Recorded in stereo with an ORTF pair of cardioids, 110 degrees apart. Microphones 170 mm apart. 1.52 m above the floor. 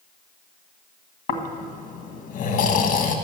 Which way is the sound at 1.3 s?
60° left.